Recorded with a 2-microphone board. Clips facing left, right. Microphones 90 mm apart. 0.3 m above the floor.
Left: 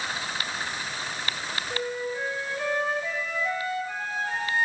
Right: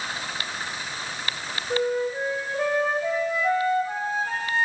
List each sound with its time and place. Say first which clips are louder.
1.7 s a flute: right 8 dB; 45° right (ahead or behind), 1.9 m